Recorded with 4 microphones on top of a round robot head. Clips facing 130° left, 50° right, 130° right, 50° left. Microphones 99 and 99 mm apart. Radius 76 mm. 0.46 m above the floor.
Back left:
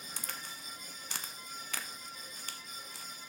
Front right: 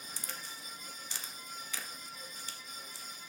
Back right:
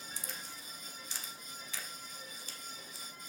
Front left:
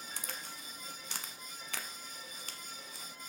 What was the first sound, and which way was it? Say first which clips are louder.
A crack: back left 2 dB, front left 2 dB; 90° left.